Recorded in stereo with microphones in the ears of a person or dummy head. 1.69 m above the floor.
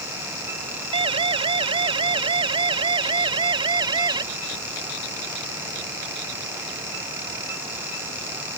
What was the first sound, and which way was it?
A siren, 30° right (ahead or behind).